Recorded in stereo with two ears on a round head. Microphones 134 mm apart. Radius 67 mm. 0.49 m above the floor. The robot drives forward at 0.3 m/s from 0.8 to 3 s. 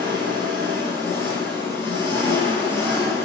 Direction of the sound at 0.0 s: 15° left (ahead or behind).